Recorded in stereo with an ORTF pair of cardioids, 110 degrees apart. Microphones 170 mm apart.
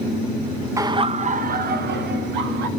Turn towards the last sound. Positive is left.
turn(degrees=-80)